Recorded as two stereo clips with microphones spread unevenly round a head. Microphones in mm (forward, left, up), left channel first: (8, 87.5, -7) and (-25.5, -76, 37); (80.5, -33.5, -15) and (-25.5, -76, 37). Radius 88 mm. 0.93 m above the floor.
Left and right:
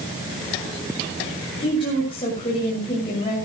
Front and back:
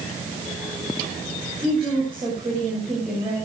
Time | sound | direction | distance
1.6 | a woman speaking | 135° left | 6 m